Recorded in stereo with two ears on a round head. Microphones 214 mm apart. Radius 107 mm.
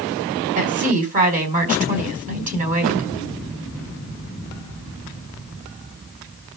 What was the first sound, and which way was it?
A woman speaking, 35° right (ahead or behind).